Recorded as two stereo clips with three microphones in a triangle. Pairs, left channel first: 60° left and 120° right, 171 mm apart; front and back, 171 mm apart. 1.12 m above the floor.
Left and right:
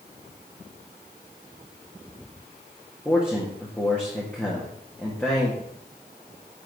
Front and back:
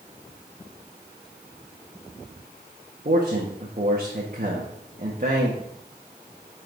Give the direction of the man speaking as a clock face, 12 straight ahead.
7 o'clock.